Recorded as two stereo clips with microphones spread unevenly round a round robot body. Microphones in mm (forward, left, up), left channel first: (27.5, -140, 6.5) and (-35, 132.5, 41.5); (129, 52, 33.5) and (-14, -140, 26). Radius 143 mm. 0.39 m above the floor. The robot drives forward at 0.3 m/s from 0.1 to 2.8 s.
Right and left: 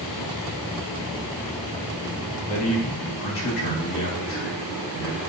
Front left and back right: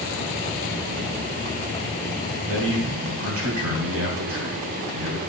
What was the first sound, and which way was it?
A man speaking, 110° right.